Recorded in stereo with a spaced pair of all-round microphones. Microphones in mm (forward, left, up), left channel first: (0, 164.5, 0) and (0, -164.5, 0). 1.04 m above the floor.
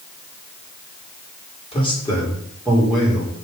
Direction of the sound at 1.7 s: 15° left (ahead or behind).